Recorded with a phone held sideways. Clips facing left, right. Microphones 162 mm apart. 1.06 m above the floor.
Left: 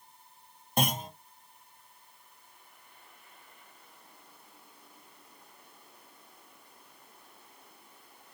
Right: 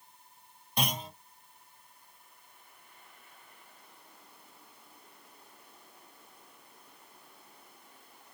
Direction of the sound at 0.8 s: 45° left (ahead or behind).